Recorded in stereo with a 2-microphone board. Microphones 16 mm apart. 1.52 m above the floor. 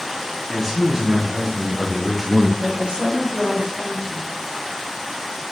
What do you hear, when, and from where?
0.5 s a man speaking: 15° right (ahead or behind), 1.8 m; by 2.5 s 5° right (ahead or behind), 0.8 m
2.6 s a woman speaking: 80° right, 3.5 m